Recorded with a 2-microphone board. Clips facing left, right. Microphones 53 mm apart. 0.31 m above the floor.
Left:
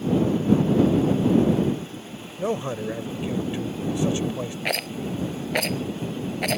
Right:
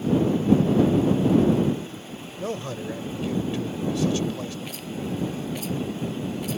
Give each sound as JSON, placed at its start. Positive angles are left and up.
{"t": 2.4, "sound": "a man speaking", "side_deg": 20}
{"t": 4.7, "sound": "a rattle", "side_deg": 75}